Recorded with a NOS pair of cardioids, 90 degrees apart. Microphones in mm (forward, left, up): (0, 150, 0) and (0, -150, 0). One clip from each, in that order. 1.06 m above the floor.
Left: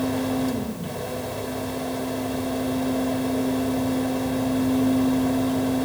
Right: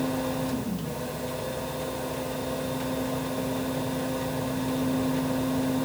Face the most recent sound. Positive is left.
turn(degrees=60)